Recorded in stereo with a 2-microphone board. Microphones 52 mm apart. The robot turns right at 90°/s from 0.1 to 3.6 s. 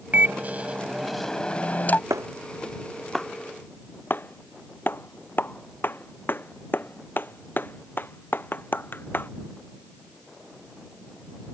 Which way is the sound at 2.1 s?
85° right.